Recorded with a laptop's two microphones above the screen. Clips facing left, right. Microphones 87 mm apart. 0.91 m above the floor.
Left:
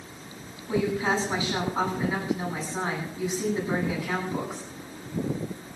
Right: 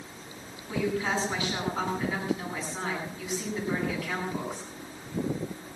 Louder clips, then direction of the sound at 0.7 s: Left 3 dB; 25° left (ahead or behind).